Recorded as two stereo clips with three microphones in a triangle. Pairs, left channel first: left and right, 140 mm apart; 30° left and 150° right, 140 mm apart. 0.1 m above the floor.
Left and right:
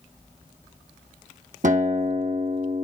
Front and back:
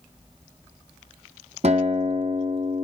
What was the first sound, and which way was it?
A guitar, 110° right.